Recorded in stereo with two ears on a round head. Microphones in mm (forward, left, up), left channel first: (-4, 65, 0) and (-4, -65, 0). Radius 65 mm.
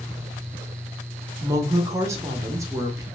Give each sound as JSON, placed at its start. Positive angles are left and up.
{"t": 1.4, "sound": "a woman speaking", "side_deg": -20, "distance_m": 0.8}